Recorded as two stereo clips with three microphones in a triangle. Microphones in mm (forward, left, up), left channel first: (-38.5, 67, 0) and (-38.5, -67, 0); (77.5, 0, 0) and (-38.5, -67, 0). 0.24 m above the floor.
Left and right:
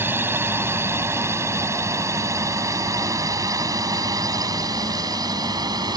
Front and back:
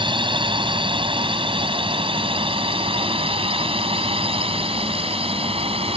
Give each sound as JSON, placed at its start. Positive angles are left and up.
{"t": 0.0, "sound": "a drone", "azimuth_deg": -155}